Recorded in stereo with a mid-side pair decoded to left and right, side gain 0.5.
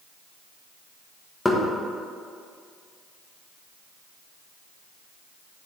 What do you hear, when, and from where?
1.4 s knocking: 15° left, 1.4 m